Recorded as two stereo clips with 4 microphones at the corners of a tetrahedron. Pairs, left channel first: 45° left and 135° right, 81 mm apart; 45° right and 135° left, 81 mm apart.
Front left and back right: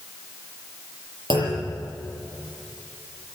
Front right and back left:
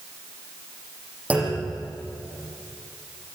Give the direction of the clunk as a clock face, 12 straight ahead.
5 o'clock.